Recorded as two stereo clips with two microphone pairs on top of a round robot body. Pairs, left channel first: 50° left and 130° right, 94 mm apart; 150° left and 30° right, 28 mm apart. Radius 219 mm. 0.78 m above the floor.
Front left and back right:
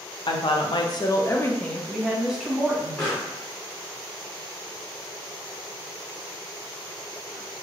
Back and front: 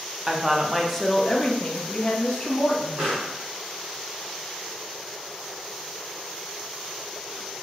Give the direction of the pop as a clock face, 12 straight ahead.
1 o'clock.